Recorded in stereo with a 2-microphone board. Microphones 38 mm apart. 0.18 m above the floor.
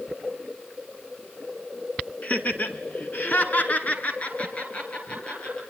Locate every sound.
2.2 s laughter: 45° left (ahead or behind), 2.5 m; by 5.6 s 30° left (ahead or behind), 5 m